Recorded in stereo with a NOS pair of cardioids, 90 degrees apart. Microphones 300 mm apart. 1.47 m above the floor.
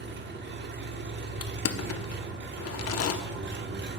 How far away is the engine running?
About 0.9 m.